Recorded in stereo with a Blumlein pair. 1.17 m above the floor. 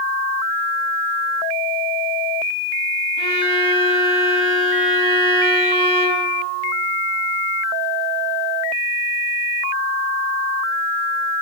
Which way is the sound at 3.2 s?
45° right.